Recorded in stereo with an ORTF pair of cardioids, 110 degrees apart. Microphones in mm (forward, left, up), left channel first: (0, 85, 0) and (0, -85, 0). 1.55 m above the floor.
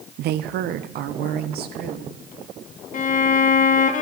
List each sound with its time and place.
0.2 s a woman speaking: 65° right, 0.7 m; by 2.1 s 60° right, 2.5 m
2.9 s a violin: 45° left, 1.4 m